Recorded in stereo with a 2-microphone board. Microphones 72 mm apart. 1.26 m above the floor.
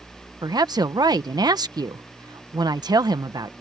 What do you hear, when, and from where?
0.4 s a woman speaking: 65° right (ahead or behind)